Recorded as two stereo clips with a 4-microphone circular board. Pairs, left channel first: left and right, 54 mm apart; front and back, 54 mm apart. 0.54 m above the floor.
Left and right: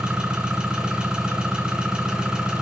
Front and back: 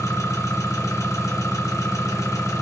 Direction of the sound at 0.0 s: 15° right.